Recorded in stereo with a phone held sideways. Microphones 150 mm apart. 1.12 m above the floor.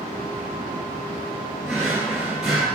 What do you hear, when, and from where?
1.6 s a drawer: centre (ahead or behind), 2.0 m